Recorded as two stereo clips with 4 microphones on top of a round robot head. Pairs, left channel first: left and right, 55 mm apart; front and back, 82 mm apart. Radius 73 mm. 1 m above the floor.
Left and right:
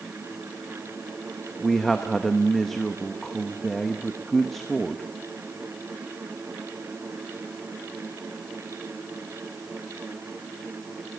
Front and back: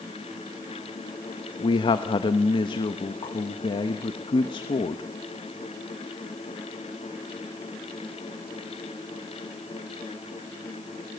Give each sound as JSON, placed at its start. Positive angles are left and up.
{"t": 1.6, "sound": "a man speaking", "azimuth_deg": 5, "distance_m": 1.1}